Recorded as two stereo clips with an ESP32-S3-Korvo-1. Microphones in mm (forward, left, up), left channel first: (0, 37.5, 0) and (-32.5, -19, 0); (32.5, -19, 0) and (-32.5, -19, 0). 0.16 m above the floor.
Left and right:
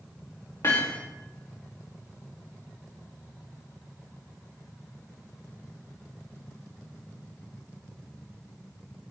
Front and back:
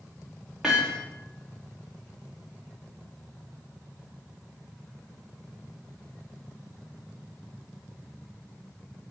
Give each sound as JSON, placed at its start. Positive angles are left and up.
{"t": 0.6, "sound": "hammering", "azimuth_deg": 95, "distance_m": 4.0}